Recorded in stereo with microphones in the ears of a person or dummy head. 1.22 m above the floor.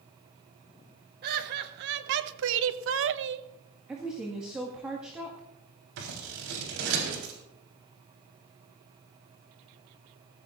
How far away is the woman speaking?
About 1.9 m.